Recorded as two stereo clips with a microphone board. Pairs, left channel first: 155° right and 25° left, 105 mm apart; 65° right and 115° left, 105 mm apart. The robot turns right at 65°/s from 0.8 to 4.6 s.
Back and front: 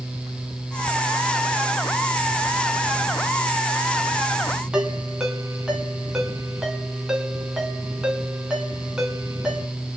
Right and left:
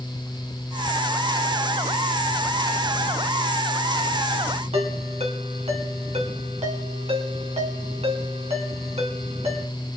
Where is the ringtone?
105° left, 3 m.